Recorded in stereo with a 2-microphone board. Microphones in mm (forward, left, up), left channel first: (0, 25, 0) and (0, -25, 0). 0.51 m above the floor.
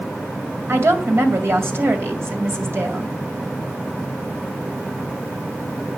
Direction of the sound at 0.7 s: 55° right (ahead or behind).